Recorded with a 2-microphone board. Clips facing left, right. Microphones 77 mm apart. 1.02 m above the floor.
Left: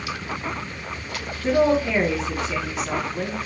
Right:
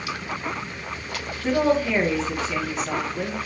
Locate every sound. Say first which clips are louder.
1.4 s a woman speaking: left 2 dB; centre (ahead or behind), 0.8 m